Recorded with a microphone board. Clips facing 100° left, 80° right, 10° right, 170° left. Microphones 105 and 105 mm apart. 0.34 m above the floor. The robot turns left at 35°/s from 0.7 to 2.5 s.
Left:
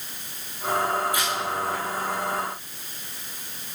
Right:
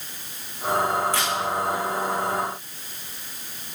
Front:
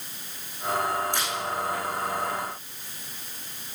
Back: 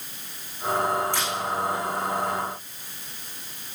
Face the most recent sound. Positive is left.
turn(degrees=-130)